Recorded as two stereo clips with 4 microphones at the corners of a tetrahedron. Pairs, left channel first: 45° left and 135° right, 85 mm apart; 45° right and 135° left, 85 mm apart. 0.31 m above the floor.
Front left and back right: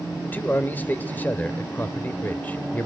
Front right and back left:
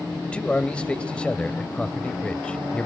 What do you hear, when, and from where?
0.2 s a man speaking: 15° left, 1.0 m